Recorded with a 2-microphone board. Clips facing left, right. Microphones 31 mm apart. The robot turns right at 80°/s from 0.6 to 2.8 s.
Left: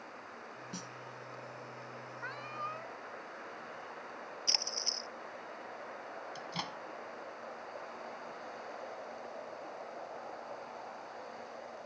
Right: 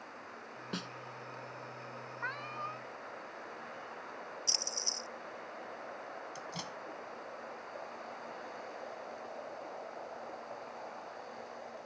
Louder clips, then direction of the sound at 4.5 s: Left 2 dB; 35° left (ahead or behind).